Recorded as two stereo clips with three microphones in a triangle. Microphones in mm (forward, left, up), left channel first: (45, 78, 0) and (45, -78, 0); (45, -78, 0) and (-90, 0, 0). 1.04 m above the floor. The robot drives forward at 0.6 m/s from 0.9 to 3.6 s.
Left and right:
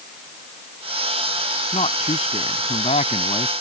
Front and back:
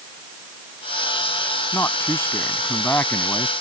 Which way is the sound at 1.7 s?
45° left.